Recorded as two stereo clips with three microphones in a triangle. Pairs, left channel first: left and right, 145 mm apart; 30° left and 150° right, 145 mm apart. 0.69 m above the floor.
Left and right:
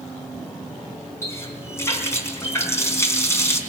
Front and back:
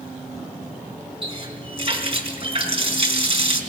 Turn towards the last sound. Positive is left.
turn(degrees=160)